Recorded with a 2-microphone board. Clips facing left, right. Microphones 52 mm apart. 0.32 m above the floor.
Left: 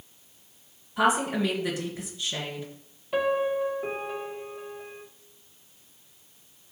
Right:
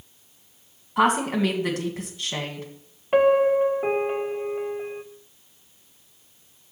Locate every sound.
1.0 s a woman speaking: 55° right (ahead or behind), 2.5 m
3.1 s a piano: 45° right (ahead or behind), 0.8 m